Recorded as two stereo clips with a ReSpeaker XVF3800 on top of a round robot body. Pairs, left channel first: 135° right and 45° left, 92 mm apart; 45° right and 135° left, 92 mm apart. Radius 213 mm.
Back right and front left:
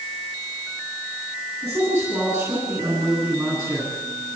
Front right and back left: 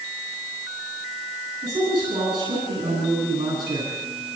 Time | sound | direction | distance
1.6 | a man speaking | 100° left | 9 m